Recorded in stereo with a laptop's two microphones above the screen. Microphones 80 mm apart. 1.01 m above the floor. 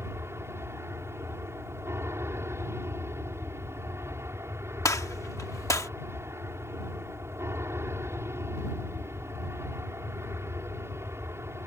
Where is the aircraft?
35° right (ahead or behind).